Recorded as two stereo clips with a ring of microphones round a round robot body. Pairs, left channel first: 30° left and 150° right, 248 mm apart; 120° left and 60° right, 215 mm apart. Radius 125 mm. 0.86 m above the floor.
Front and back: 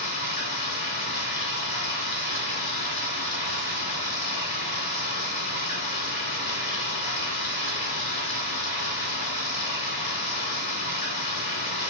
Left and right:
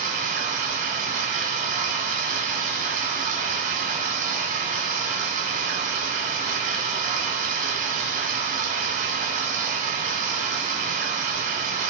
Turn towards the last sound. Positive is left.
turn(degrees=-20)